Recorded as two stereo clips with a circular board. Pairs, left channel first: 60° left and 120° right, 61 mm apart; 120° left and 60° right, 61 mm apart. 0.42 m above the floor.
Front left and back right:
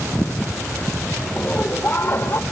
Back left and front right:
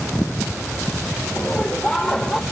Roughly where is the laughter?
Left.